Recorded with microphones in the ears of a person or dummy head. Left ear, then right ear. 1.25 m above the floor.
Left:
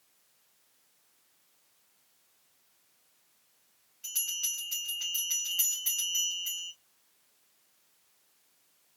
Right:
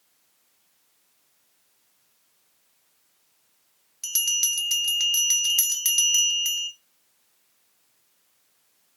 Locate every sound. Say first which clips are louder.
4.0 s a bell: right 10 dB; 70° right (ahead or behind), 0.7 m